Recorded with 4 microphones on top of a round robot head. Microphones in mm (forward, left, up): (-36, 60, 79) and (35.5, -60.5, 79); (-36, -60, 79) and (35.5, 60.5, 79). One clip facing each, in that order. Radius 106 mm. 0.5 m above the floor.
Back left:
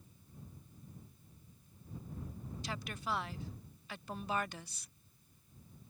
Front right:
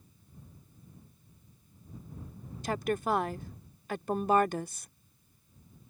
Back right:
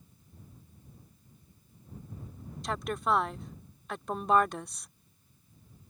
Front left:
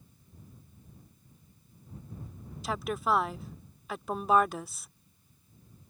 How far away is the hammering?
No hammering in this recording.